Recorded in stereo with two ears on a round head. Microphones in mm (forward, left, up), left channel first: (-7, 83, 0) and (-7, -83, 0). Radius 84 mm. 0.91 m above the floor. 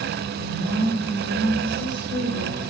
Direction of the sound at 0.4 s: 70° right (ahead or behind).